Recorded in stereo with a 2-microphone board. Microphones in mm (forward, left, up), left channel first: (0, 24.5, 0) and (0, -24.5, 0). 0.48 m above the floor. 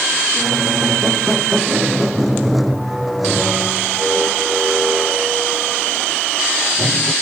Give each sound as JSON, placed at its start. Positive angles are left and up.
{"t": 0.4, "sound": "a squeak", "side_deg": 0}